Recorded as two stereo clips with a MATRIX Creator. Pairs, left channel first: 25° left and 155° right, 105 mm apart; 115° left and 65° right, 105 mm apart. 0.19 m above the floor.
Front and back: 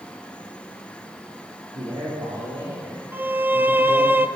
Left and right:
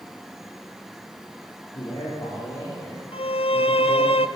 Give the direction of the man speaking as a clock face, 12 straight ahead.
6 o'clock.